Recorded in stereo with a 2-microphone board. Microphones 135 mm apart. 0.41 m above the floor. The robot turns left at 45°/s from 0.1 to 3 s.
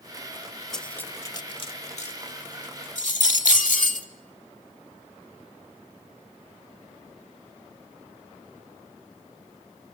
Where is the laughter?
No laughter in this recording.